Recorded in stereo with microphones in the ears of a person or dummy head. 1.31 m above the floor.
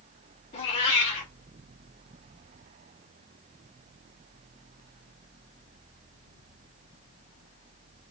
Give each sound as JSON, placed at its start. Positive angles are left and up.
{"t": 0.5, "sound": "a cat meowing", "side_deg": 20, "distance_m": 0.7}